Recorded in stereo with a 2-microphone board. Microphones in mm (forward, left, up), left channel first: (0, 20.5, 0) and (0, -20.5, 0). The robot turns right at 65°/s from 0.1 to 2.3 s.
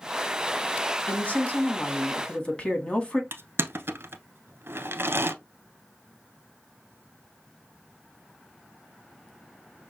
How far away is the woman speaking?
About 1.3 m.